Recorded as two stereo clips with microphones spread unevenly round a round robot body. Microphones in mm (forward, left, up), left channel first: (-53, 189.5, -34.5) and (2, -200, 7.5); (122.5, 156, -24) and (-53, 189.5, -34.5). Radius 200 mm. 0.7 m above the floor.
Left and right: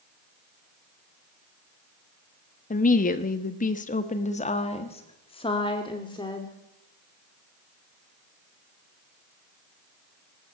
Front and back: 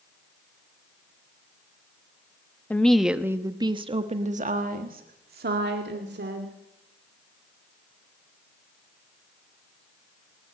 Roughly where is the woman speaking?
Ahead left.